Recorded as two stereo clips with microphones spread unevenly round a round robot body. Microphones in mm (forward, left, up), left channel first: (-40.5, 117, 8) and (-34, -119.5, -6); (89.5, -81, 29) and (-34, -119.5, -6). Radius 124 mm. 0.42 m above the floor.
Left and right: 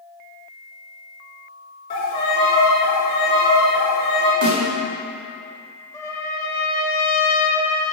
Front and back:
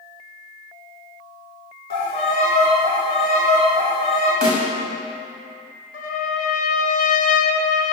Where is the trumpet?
10° left, 0.7 m.